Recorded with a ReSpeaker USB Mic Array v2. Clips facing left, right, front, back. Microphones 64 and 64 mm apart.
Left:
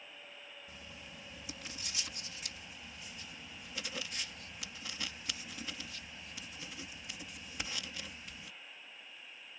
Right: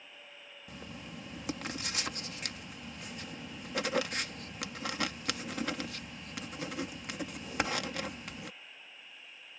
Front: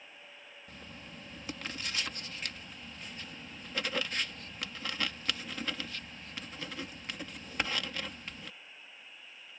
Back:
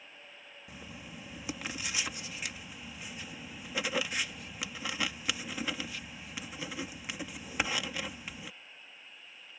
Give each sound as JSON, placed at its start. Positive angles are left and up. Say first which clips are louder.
{"t": 0.7, "sound": "writing", "louder": "right 6 dB, back 2 dB", "azimuth_deg": -100}